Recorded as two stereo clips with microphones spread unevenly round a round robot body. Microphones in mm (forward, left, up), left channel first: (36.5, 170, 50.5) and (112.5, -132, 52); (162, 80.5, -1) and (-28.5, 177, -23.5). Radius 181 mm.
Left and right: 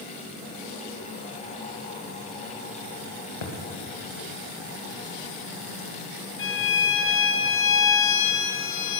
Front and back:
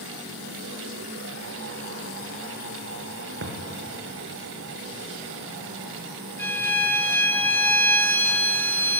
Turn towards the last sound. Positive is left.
turn(degrees=55)